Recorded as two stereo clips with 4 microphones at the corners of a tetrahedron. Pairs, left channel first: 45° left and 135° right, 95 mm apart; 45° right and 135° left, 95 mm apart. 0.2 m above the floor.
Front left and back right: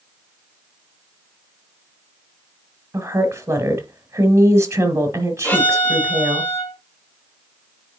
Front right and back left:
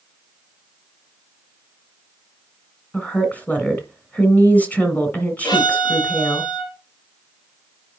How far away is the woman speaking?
About 1.6 m.